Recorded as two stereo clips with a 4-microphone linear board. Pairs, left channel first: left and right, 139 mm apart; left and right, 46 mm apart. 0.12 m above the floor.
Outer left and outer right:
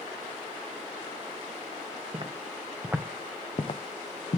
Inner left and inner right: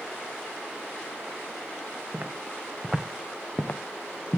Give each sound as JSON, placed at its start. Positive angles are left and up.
{"t": 2.1, "sound": "footsteps", "side_deg": -35, "distance_m": 1.8}